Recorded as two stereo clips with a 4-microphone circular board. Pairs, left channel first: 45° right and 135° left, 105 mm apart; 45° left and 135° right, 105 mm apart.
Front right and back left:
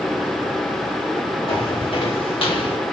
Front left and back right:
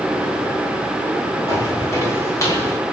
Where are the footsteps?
10° right, 4.5 m; by 2.8 s 15° right, 4 m.